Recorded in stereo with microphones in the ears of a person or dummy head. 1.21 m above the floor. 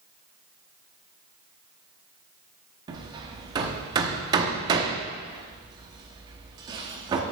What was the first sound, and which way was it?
Hammering, 20° right (ahead or behind).